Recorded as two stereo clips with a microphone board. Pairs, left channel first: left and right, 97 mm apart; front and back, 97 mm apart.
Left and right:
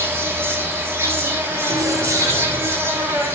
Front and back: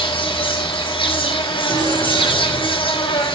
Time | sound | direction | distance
0.0 | an insect | 30° right | 5.5 m
1.7 | keys jangling | 145° right | 2.5 m